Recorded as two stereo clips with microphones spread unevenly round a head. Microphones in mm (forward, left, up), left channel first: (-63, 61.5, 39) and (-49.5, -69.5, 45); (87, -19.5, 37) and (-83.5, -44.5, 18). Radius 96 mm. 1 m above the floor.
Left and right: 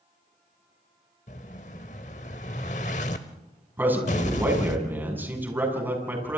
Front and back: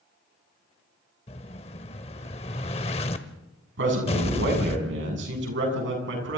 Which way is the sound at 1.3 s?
55° left.